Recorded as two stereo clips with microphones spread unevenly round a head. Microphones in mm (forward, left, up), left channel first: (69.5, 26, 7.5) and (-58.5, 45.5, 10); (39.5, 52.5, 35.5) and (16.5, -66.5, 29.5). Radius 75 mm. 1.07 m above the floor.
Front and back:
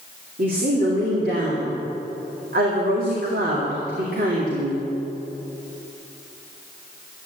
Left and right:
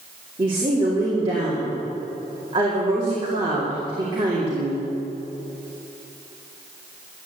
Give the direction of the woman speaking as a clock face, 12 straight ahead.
5 o'clock.